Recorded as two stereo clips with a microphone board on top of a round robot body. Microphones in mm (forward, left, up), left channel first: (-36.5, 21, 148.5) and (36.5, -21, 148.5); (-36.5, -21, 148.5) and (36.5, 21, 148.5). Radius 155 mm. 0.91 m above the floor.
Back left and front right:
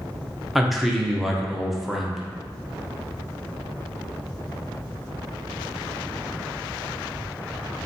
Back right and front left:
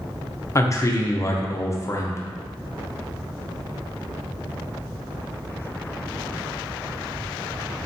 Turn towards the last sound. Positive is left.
turn(degrees=-120)